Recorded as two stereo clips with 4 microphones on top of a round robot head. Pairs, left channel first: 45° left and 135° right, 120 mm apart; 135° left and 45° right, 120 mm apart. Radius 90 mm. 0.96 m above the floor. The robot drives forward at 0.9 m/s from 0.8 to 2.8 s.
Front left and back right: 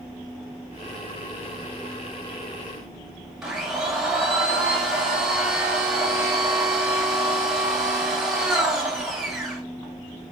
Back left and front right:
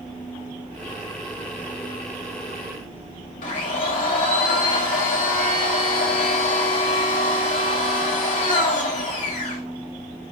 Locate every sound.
3.4 s a blender: 140° left, 5.5 m